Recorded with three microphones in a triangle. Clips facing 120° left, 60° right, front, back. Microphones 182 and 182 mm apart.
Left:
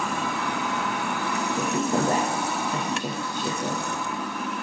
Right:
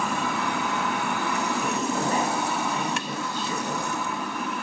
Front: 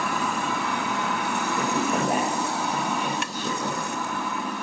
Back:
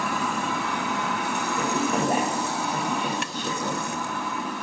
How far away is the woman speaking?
About 3 m.